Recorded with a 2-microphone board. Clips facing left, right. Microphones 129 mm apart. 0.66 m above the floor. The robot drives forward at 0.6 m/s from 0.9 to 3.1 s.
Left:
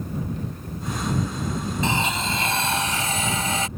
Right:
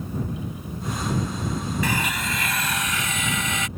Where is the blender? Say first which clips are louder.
Left 2 dB; 25° left (ahead or behind); by 3.7 s 35° left (ahead or behind).